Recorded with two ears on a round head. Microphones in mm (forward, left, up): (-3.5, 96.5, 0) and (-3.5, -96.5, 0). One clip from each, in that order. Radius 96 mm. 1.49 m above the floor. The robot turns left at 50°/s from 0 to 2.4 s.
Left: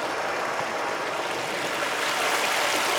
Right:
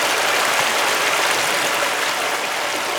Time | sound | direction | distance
0.0 | running water | 60° right | 0.8 m